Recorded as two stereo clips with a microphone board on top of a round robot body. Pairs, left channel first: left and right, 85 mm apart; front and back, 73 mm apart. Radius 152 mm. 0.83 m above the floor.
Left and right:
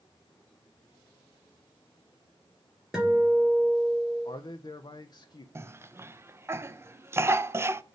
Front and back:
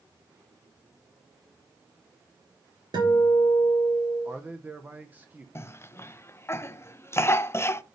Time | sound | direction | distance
2.9 | a guitar | 175° right | 3.5 m
4.2 | a man speaking | 115° left | 0.7 m
5.5 | a cough | 40° right | 0.7 m